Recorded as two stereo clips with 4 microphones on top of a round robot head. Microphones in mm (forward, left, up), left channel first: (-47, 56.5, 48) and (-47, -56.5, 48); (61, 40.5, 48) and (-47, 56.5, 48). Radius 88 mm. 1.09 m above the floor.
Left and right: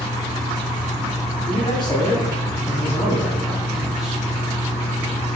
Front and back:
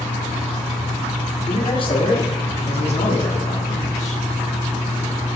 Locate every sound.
1.5 s a man speaking: 35° left, 2.5 m; by 4.2 s 5° right, 1.8 m